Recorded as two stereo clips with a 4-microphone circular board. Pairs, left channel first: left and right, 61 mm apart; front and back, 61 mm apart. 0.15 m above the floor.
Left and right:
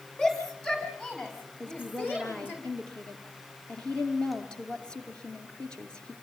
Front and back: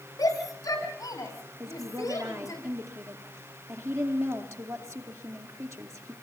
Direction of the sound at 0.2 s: 10° left.